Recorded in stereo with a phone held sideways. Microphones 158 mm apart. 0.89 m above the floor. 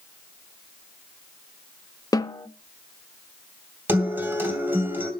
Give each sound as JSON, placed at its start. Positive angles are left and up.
{"t": 2.1, "sound": "a snare drum", "side_deg": 25, "distance_m": 0.5}
{"t": 3.9, "sound": "a guitar", "side_deg": -15, "distance_m": 2.5}